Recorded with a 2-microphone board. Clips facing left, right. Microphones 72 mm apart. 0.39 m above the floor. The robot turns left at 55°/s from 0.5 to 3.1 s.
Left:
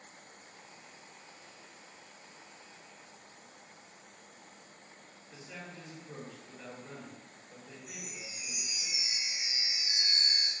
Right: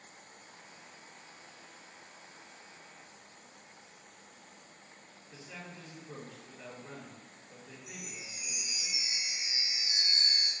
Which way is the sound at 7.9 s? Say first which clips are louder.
Even; 35° left (ahead or behind).